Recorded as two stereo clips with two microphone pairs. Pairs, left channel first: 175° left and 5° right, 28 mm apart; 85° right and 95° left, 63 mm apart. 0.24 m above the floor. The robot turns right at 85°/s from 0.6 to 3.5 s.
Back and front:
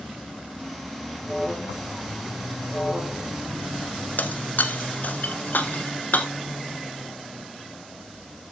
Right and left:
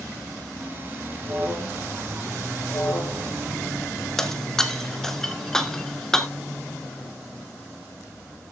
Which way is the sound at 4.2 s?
170° right.